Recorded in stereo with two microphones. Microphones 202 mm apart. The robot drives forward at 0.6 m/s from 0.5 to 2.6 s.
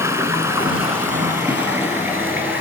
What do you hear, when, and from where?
0.0 s running water: 10° right (ahead or behind), 1.5 m; by 2.6 s 5° right (ahead or behind), 2.5 m